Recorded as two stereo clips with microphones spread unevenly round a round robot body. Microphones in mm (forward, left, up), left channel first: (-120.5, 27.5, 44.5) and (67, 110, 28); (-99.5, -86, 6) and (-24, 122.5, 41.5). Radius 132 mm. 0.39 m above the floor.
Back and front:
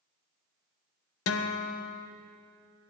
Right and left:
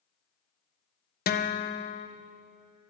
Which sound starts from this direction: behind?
A guitar, at 1.3 s.